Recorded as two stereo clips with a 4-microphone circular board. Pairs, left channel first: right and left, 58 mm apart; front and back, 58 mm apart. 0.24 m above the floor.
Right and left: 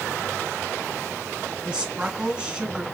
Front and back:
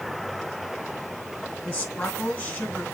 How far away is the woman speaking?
About 1.4 m.